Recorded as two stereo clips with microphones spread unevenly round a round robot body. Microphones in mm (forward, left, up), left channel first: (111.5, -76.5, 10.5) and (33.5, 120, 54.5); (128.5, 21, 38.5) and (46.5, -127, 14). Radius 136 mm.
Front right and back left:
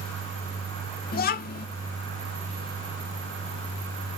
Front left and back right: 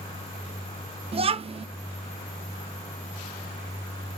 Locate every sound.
1.1 s a child speaking: 80° right, 0.6 m